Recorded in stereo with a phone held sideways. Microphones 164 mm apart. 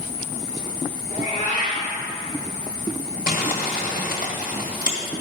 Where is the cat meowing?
45° left (ahead or behind), 2.5 m.